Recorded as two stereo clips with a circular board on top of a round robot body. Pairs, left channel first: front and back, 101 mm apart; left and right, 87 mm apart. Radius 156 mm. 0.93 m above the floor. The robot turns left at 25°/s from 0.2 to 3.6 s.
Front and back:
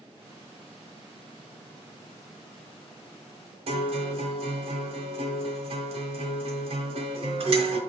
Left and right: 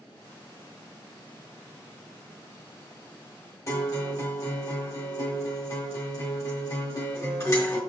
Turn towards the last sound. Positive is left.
turn(degrees=150)